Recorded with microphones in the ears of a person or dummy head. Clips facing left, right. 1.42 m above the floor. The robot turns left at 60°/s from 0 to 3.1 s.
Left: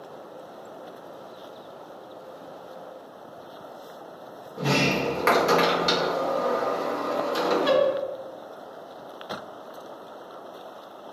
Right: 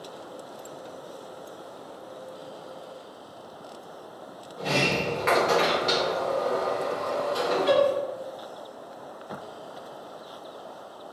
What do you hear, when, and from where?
4.6 s a sliding door: 65° left (ahead or behind), 0.8 m